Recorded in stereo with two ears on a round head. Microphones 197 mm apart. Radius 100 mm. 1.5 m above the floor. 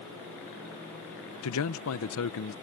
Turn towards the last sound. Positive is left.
turn(degrees=75)  # may be behind; listen again after turning